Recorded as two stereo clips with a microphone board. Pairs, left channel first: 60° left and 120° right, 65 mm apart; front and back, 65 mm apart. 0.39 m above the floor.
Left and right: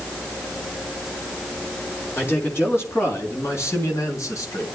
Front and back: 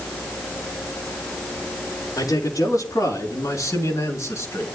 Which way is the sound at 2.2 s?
5° left.